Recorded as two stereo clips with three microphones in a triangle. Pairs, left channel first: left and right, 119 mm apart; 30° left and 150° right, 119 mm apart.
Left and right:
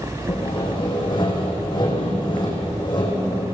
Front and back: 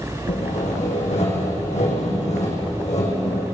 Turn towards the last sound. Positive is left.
turn(degrees=40)